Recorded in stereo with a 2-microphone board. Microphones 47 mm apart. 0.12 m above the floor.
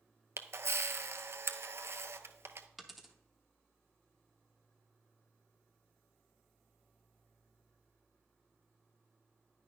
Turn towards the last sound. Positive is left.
turn(degrees=0)  # may be behind; listen again after turning